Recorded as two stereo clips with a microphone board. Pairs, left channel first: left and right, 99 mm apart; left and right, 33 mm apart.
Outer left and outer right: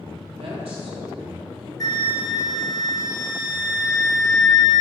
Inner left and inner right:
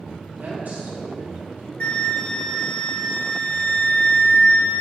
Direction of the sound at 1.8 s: 40° left (ahead or behind).